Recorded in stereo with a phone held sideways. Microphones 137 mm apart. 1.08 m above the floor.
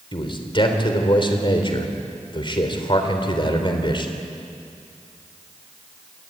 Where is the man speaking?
40° left (ahead or behind), 3.5 m.